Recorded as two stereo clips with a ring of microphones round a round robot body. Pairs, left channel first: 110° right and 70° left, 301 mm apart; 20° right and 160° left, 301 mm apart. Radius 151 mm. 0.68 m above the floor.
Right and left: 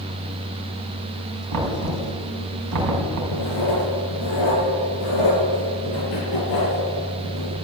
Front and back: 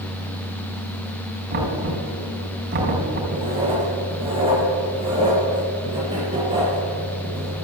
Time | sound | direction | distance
1.5 | knocking | 100° left | 4.5 m
3.3 | writing | 130° right | 5.5 m